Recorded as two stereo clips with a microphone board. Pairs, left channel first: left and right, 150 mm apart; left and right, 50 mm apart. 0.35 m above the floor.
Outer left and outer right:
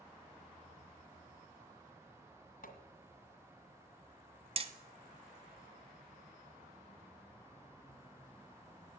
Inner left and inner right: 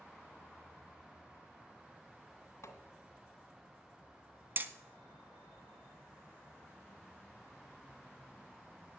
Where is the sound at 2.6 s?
70° left (ahead or behind), 1.9 m.